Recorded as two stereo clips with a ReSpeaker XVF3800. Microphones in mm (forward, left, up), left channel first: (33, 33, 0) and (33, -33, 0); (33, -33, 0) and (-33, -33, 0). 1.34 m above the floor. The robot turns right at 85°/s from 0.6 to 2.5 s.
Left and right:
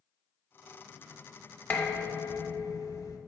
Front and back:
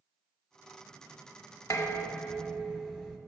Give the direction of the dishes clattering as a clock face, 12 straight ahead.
11 o'clock.